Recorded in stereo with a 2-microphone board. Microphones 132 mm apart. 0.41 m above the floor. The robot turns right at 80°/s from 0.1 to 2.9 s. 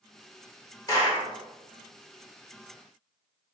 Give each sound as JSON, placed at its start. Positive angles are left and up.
{"t": 0.9, "sound": "a clap", "azimuth_deg": 35, "distance_m": 1.5}